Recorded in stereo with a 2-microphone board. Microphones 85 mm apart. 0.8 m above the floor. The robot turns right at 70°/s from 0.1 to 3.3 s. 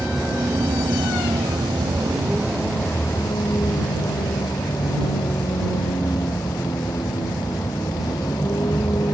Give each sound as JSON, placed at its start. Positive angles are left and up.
{"t": 0.0, "sound": "a vehicle", "azimuth_deg": -175}